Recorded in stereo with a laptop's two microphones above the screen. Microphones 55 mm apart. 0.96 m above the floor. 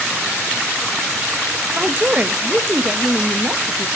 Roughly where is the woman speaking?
Right.